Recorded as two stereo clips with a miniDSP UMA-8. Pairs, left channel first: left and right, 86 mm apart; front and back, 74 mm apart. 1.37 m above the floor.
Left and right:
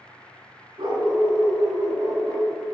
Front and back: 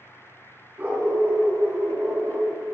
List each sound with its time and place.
0.8 s a dog barking: 115° right, 4 m; by 2.5 s 130° right, 5 m